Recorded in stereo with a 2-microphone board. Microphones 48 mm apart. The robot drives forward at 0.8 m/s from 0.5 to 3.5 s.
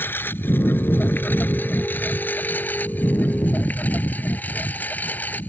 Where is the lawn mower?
45° left (ahead or behind); by 5.5 s 35° left (ahead or behind).